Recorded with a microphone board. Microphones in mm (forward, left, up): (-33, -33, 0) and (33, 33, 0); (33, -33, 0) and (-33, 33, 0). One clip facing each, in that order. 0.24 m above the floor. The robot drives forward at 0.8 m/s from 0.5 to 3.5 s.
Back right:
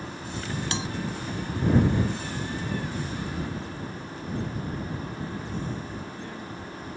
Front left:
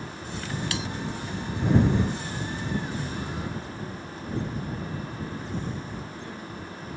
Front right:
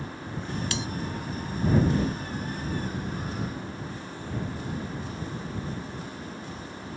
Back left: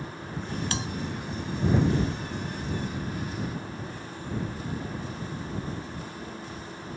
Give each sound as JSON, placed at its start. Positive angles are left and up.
{"t": 0.7, "sound": "a bell", "azimuth_deg": 170}